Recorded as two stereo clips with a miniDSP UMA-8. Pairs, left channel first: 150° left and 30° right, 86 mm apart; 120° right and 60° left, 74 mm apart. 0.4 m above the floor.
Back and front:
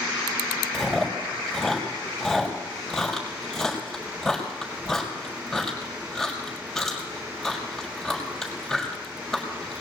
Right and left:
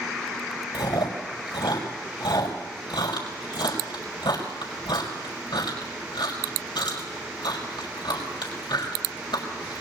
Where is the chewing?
120° right, 5.5 m.